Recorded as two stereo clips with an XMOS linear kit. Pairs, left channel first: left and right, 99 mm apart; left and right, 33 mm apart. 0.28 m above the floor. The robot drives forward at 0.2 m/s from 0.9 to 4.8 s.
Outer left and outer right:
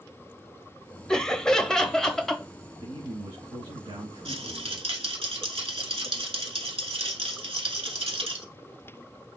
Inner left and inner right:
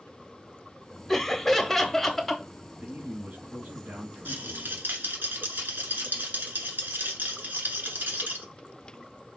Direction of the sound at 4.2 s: 80° right.